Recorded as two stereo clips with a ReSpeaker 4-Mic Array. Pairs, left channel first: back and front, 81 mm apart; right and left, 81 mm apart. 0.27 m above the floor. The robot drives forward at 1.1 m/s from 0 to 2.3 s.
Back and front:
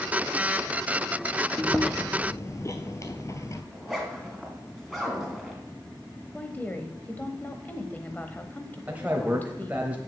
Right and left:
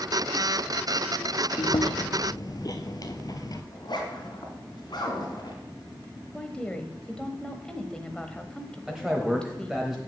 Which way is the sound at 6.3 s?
155° right.